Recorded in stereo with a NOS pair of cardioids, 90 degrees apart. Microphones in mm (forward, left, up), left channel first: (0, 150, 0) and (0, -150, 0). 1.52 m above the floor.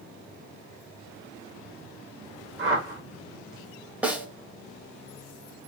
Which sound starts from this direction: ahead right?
A whoosh, at 2.6 s.